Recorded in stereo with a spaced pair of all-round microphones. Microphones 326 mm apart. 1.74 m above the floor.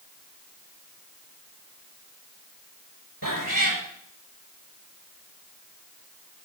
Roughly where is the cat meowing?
Right.